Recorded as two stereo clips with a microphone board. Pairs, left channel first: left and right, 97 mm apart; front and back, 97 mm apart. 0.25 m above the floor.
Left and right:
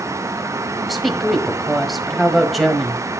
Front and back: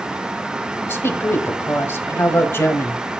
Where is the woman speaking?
Straight ahead, 1.5 m.